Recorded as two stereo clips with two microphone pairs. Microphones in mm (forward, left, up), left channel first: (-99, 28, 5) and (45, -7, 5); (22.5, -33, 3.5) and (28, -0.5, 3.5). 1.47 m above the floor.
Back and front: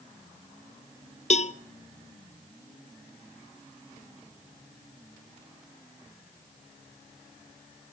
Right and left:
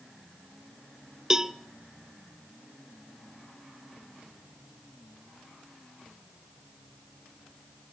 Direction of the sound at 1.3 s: 150° left.